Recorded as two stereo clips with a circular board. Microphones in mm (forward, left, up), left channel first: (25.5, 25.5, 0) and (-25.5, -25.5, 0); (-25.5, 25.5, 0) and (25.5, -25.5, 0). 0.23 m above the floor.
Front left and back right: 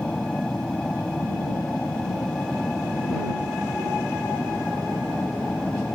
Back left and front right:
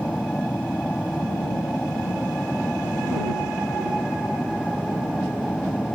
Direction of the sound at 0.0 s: 90° left.